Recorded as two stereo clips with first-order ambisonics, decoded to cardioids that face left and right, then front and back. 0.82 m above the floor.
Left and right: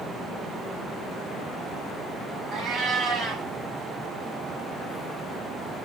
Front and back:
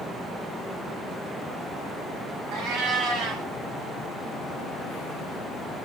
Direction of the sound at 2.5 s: 155° right.